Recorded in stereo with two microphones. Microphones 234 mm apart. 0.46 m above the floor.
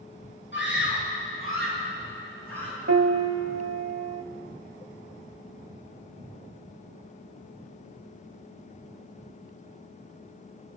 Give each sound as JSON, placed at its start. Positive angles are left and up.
{"t": 0.5, "sound": "a scream", "side_deg": 50, "distance_m": 7.5}
{"t": 2.9, "sound": "a piano", "side_deg": -70, "distance_m": 0.8}